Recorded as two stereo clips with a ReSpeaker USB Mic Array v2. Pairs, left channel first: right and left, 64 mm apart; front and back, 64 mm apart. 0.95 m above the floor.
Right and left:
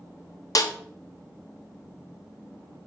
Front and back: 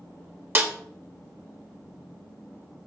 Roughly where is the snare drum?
Behind right.